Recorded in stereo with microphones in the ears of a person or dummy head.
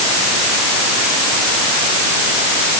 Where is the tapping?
No tapping in this recording.